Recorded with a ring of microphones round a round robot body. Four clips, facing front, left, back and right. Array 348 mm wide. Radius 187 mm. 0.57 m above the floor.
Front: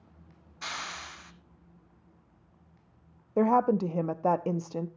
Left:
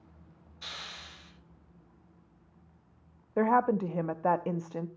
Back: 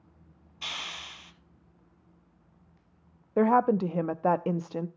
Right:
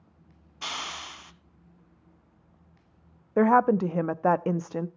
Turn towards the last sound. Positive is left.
turn(degrees=-105)